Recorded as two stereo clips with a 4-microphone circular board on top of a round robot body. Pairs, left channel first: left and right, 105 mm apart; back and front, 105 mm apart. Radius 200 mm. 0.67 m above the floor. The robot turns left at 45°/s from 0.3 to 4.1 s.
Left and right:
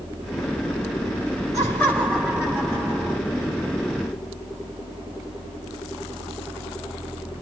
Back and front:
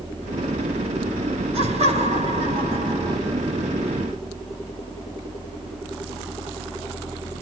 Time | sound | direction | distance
1.5 | laughter | 30° left | 6.5 m